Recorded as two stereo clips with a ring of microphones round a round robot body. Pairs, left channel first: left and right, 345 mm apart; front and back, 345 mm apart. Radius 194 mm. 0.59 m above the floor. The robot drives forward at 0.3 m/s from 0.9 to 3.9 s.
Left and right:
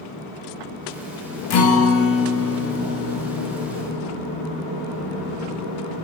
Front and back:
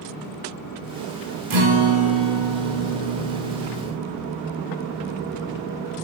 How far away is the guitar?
About 0.7 m.